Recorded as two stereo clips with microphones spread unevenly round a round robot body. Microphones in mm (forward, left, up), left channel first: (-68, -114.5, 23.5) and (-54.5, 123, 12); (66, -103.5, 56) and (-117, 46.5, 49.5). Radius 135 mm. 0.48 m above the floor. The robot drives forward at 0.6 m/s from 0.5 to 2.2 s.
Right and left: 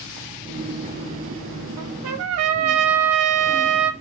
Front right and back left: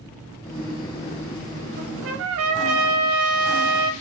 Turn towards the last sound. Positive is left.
turn(degrees=105)